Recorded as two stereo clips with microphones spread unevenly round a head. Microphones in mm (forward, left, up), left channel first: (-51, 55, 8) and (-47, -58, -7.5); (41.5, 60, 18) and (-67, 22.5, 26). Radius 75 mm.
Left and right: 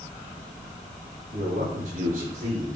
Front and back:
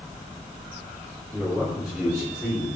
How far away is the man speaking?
About 3 m.